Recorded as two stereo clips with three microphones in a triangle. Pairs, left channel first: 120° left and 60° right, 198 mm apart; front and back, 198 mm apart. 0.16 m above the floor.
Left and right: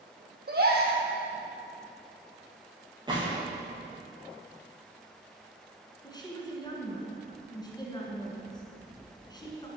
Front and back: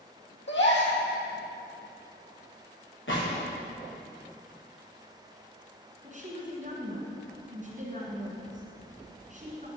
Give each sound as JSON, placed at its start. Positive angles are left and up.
{"t": 0.5, "sound": "a gasp", "azimuth_deg": -20, "distance_m": 2.0}
{"t": 3.1, "sound": "a gunshot", "azimuth_deg": 10, "distance_m": 3.5}
{"t": 6.0, "sound": "a woman speaking", "azimuth_deg": 175, "distance_m": 2.0}